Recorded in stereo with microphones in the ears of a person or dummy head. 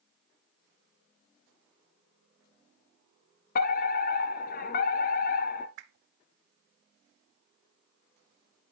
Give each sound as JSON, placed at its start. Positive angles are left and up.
{"t": 3.5, "sound": "a fire alarm", "side_deg": 45, "distance_m": 0.9}
{"t": 5.8, "sound": "a whoosh", "side_deg": -70, "distance_m": 0.8}